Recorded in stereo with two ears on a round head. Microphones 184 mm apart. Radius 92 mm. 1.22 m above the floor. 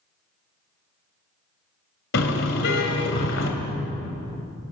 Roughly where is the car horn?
Left.